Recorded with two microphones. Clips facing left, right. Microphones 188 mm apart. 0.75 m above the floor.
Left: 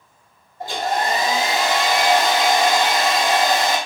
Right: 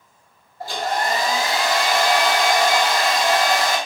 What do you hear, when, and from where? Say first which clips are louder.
0.6 s a hair dryer: left 1 dB; 20° left (ahead or behind), 0.8 m